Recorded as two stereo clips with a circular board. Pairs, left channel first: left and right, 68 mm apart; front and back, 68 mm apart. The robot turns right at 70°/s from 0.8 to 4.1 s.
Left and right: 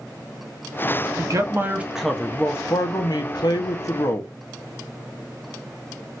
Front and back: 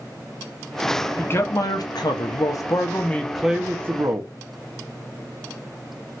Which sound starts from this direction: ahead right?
A man speaking, at 1.2 s.